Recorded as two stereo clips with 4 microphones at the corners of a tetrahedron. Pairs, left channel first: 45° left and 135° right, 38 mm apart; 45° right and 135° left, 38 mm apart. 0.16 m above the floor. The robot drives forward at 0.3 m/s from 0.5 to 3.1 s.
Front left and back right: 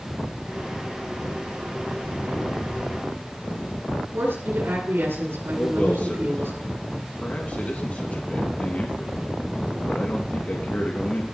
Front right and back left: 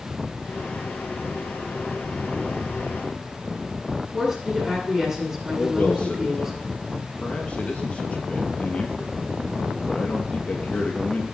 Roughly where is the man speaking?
Ahead.